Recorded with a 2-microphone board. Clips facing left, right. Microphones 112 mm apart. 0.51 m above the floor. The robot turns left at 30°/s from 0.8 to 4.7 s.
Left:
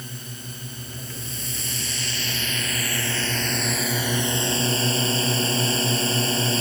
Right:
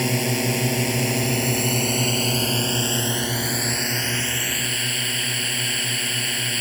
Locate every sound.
0.0 s a drone: 95° right; by 6.6 s 150° left